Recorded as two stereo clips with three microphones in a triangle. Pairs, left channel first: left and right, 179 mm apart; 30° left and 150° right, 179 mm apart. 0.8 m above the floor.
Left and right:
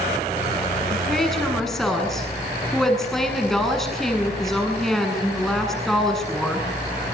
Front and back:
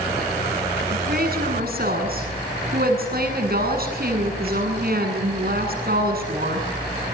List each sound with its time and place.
0.9 s a woman speaking: straight behind, 8 m